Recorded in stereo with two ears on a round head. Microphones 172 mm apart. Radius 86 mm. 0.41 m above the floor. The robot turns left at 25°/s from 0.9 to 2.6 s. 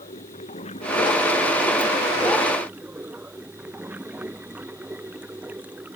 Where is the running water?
35° left; by 6.0 s 10° right.